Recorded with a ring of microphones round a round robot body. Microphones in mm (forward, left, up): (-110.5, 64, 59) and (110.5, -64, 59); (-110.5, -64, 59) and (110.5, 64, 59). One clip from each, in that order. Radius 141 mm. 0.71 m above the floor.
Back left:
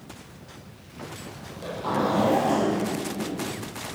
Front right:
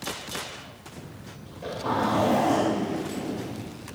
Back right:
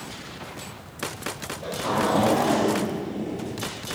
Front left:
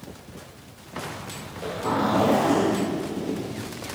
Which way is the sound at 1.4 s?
70° left.